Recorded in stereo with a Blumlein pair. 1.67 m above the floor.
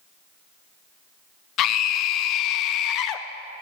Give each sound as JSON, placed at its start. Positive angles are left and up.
{"t": 1.6, "sound": "a scream", "azimuth_deg": 35, "distance_m": 0.6}